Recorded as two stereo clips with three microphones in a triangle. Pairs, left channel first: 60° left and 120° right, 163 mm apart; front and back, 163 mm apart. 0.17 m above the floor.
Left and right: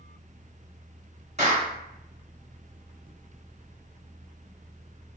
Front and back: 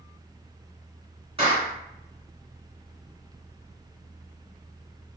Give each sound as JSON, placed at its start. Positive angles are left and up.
{"t": 1.4, "sound": "a clap", "azimuth_deg": -140, "distance_m": 1.7}